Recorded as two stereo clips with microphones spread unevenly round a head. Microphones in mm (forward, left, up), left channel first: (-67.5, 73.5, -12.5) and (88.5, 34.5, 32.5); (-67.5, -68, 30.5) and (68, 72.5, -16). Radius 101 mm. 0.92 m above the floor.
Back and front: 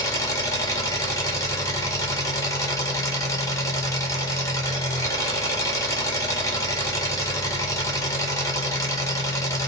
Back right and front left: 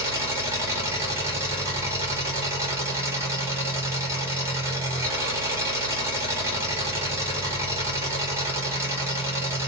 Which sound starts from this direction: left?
An engine running, at 0.0 s.